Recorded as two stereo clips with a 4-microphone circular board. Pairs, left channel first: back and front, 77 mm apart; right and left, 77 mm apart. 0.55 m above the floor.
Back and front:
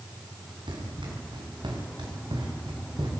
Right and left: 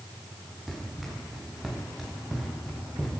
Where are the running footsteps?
5° left, 8 m; by 3.1 s straight ahead, 6 m.